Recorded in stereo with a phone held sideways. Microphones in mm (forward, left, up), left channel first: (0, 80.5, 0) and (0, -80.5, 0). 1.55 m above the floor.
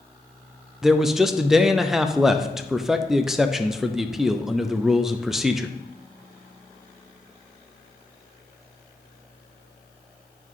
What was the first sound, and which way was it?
A man speaking, centre (ahead or behind).